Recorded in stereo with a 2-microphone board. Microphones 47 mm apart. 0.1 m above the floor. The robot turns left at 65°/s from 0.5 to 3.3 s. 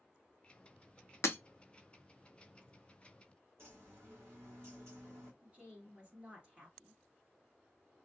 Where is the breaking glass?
80° left, 0.5 m; by 1.4 s 70° left (ahead or behind), 0.5 m.